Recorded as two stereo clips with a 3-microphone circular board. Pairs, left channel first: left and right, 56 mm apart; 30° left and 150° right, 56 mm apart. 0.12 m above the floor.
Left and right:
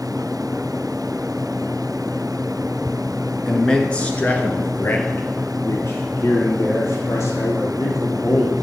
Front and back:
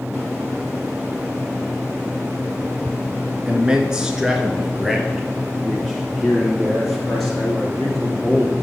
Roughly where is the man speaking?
Behind.